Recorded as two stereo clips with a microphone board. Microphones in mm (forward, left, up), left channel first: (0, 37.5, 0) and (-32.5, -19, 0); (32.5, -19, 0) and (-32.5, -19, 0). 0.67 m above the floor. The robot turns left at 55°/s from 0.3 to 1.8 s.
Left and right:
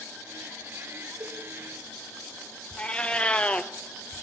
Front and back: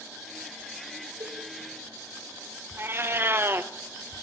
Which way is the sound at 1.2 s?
170° right.